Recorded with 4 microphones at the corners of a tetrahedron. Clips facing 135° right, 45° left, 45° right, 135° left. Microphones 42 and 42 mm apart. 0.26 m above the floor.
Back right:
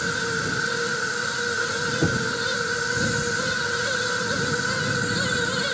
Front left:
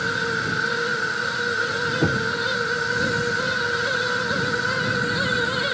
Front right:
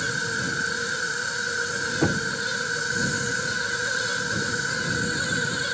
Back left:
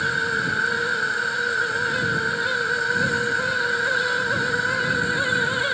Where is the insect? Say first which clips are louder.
Front left 2 dB, back left 4 dB; 110° left.